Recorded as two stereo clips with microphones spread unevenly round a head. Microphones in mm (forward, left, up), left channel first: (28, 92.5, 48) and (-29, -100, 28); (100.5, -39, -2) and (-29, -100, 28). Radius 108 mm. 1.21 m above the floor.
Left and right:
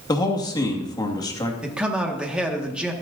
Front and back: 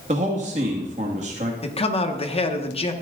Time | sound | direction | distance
0.1 | a man speaking | 145° left | 2 m
1.6 | a man speaking | 20° right | 1.9 m